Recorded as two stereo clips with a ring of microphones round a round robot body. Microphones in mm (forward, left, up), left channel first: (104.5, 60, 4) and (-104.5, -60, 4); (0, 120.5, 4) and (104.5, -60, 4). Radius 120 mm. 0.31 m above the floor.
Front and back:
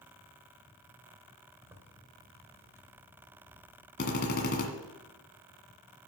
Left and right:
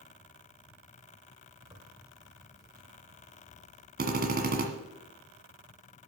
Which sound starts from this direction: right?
A zipper, at 1.6 s.